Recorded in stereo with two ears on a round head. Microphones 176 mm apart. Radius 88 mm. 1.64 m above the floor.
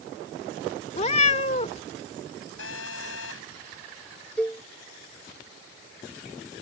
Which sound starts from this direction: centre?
A cowbell, at 4.4 s.